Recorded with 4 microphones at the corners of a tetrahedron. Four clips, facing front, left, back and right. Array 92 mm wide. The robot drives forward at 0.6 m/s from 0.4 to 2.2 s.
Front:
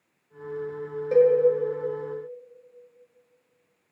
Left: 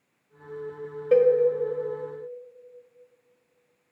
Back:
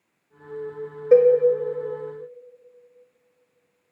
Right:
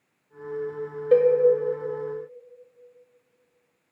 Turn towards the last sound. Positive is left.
turn(degrees=-175)